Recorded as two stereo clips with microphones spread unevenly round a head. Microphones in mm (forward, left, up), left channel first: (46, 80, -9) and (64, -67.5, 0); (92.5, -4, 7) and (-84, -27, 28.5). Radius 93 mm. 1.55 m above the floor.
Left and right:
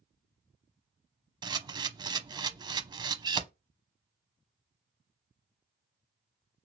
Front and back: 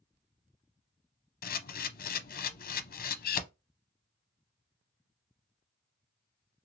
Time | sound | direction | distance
1.4 | a camera shutter | 20° right | 0.6 m